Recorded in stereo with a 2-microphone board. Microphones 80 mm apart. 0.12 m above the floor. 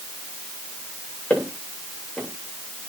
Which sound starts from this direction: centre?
Footsteps, at 1.3 s.